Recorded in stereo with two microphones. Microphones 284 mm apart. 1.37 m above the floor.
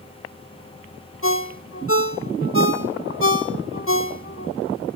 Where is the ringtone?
45° left (ahead or behind), 1.8 m.